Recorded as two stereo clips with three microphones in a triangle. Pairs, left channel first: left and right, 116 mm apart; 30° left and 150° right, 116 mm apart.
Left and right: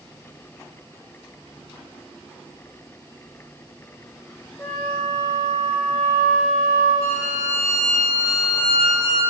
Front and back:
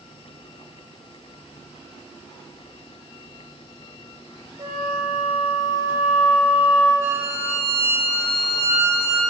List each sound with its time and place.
4.6 s a flute: 160° left, 3 m
7.0 s a violin: 35° right, 3 m